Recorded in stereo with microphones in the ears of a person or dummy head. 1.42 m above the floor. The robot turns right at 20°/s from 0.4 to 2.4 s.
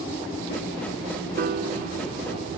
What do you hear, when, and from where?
1.4 s a piano: 50° right (ahead or behind); by 2.6 s 30° right (ahead or behind)